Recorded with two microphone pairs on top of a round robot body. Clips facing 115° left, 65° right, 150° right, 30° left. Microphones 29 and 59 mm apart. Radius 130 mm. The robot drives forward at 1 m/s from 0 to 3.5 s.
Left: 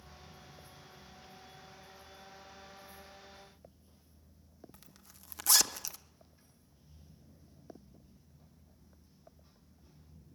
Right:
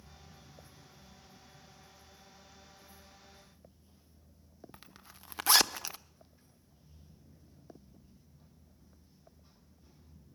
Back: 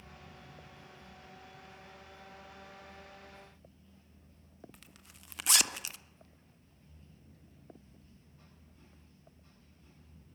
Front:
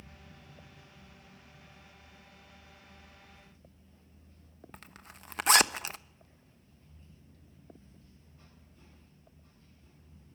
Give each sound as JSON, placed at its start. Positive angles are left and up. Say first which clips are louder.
{"t": 4.7, "sound": "a zipper", "louder": "right 5 dB, front 7 dB", "azimuth_deg": -10, "distance_m": 1.0}